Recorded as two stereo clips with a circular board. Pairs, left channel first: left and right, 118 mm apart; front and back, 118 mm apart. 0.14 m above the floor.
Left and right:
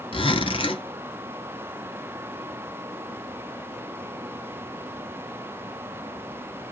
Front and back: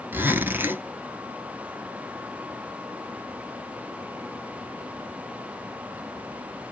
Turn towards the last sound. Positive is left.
turn(degrees=110)